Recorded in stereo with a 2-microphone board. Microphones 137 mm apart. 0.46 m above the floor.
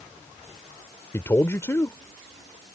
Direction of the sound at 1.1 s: 20° left (ahead or behind).